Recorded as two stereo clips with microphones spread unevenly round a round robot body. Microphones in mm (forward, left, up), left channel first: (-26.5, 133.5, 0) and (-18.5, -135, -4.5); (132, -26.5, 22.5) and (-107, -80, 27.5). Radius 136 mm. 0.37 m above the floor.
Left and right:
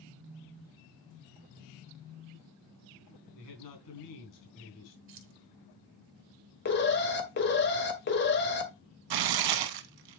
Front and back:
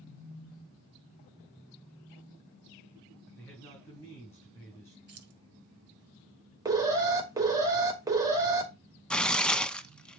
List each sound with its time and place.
3.4 s a man speaking: 95° left, 4 m
5.1 s keys jangling: 130° right, 2 m
6.7 s an alarm: 120° left, 1.9 m
9.1 s tearing paper: 75° right, 0.8 m